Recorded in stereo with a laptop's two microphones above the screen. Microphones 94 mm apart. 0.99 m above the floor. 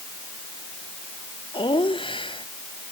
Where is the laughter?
60° left (ahead or behind).